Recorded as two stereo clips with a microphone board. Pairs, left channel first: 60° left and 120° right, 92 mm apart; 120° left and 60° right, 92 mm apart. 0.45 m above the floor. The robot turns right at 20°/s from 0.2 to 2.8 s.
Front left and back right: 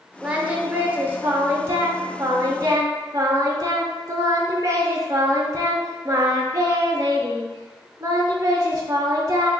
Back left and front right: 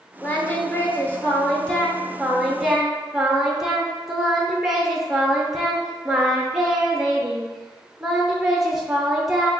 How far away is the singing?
About 0.6 m.